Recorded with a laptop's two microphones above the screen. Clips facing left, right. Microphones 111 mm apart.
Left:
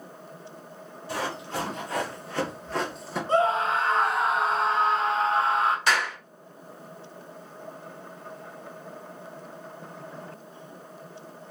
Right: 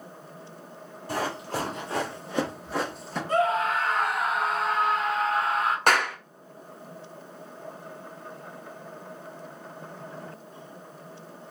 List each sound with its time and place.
1.1 s running footsteps: 45° right (ahead or behind), 1.4 m; by 3.2 s 5° left (ahead or behind), 1.0 m
3.3 s a scream: 30° left (ahead or behind), 0.7 m
5.9 s a clap: 55° right (ahead or behind), 0.6 m